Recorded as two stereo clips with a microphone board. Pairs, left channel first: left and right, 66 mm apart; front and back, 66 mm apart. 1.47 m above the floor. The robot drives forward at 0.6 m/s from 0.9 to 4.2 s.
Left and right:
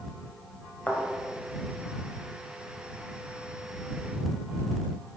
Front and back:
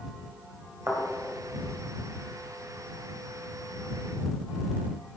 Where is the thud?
155° left, 1.8 m.